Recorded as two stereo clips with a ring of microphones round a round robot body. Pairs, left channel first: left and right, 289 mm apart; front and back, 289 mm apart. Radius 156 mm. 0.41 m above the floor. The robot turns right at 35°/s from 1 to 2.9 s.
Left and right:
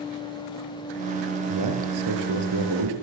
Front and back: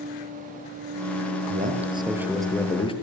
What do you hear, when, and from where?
1.5 s a man speaking: 120° right, 7.5 m; by 2.9 s 70° right, 7.5 m